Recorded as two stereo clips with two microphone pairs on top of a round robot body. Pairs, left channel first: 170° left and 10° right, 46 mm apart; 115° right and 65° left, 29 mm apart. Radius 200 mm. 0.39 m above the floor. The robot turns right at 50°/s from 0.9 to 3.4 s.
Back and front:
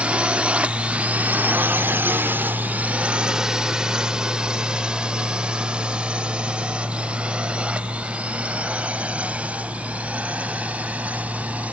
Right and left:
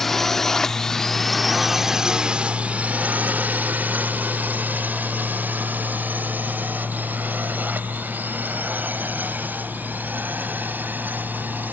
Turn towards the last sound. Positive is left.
turn(degrees=50)